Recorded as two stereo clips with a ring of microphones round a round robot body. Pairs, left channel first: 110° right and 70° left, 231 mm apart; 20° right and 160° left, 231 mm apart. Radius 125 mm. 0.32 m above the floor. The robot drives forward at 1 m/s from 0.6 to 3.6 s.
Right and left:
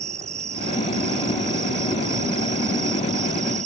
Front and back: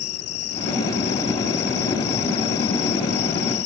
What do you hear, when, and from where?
0.0 s an insect: 5° left